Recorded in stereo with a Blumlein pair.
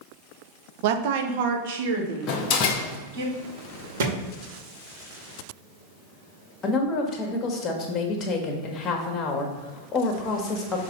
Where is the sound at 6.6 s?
25° left, 1.6 m.